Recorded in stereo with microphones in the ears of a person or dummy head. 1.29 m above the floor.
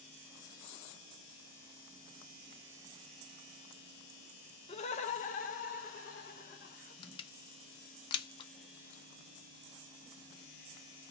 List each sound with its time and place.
4.7 s laughter: 30° left (ahead or behind), 0.6 m; by 6.9 s 50° left (ahead or behind), 1.9 m
7.0 s crushing: 25° left (ahead or behind), 0.7 m